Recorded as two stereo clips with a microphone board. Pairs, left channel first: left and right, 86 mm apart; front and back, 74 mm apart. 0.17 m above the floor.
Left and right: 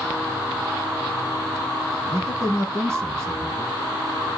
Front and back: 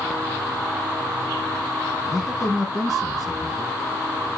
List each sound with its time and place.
2.1 s a man speaking: 85° right, 1.6 m